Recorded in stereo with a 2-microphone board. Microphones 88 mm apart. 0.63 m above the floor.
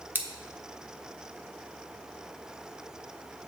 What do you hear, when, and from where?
0.1 s scissors: 20° right (ahead or behind), 0.9 m